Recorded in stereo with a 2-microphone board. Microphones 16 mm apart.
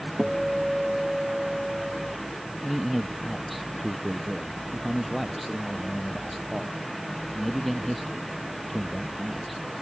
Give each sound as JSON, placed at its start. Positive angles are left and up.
{"t": 0.2, "sound": "a guitar", "side_deg": -20}
{"t": 2.6, "sound": "a man speaking", "side_deg": 0}